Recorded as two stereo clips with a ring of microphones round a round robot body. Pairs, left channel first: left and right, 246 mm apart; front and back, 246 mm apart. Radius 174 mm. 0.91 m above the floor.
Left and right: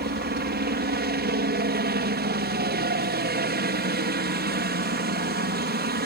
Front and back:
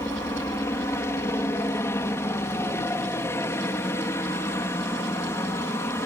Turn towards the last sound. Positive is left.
turn(degrees=-75)